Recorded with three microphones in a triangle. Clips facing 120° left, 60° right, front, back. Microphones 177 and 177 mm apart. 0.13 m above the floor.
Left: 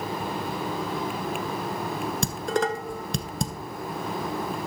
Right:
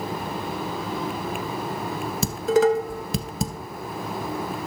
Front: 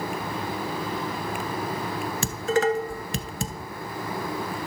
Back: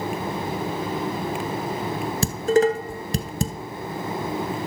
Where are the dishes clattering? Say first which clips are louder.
Right 10 dB, back 5 dB; 145° right, 1.0 m.